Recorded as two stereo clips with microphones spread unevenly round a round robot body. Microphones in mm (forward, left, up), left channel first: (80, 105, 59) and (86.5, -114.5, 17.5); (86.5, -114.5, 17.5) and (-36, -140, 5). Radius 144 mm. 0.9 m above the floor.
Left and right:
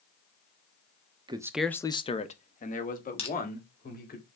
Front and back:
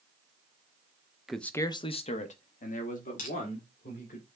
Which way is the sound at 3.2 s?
25° left.